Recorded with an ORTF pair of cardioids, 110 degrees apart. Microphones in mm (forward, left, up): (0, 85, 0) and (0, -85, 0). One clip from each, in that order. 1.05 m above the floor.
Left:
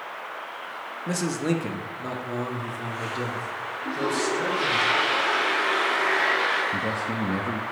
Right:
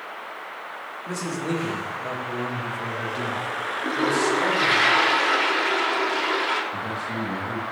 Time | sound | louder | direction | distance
1.1 | a man speaking | left 2 dB | 45° left | 1.3 m
3.8 | a toilet flushing | right 4 dB | 40° right | 1.9 m
6.7 | a man speaking | left 2 dB | 55° left | 1.1 m